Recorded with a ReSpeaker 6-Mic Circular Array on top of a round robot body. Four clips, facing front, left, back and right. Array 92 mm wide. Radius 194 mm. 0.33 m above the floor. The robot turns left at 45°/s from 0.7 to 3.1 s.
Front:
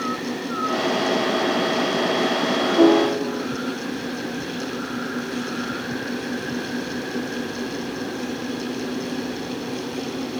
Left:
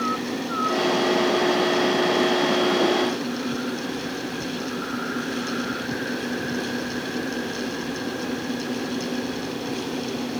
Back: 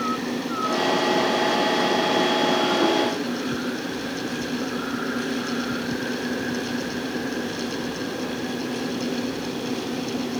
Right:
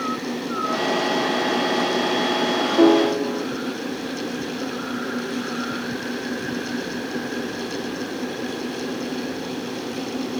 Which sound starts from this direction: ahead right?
A piano, at 2.8 s.